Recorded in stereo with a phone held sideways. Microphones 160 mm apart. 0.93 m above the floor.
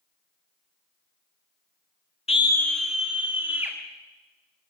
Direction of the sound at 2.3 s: 40° left (ahead or behind).